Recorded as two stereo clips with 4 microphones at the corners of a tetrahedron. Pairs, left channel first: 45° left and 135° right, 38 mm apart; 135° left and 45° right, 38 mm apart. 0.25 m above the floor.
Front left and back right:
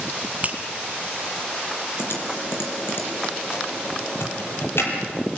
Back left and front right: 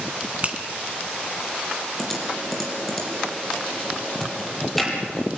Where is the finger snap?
90° right, 1.9 m.